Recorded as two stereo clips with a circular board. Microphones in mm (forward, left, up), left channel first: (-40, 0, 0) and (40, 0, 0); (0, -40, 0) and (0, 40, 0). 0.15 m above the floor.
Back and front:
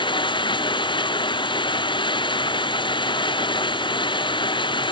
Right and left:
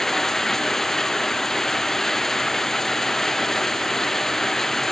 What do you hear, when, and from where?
0.0 s running water: 175° right